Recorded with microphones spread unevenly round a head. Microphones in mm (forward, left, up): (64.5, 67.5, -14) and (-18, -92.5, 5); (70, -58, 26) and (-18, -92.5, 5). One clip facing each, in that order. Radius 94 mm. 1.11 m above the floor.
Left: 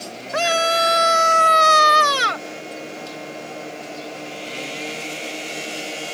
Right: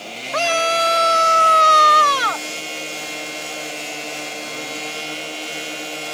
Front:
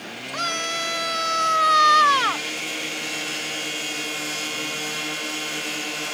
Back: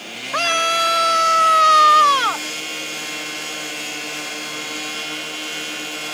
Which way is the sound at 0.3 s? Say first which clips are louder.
Even, back 9 dB; 145° left.